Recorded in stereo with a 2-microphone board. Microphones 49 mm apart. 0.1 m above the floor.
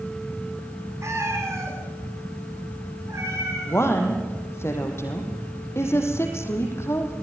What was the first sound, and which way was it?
A cat meowing, 85° right.